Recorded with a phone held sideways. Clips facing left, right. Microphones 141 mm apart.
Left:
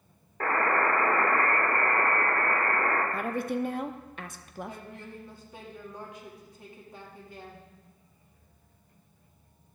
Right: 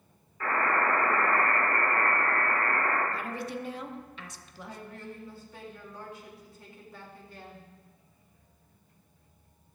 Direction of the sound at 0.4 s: 65° left (ahead or behind).